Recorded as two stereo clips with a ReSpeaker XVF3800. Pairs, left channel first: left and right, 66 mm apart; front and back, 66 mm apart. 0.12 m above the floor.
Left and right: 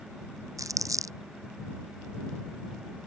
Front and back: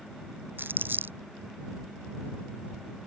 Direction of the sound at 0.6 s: 120° right.